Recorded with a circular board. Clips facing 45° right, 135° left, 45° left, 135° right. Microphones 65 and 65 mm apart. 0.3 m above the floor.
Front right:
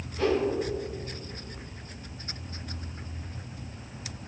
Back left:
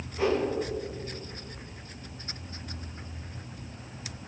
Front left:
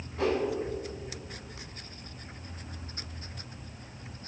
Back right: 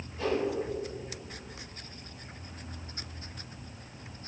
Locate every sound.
0.2 s a whoosh: 65° left, 0.9 m